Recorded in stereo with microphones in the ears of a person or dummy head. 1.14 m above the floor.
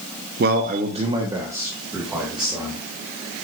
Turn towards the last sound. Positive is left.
turn(degrees=0)  # may be behind; listen again after turning